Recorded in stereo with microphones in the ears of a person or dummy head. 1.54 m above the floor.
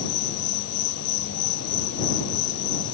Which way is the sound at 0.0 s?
60° left (ahead or behind).